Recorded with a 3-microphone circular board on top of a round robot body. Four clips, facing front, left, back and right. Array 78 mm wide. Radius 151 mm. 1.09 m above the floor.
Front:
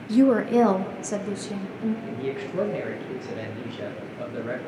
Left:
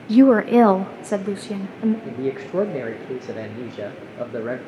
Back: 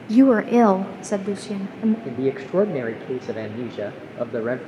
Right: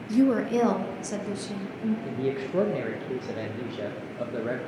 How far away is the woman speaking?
About 0.9 m.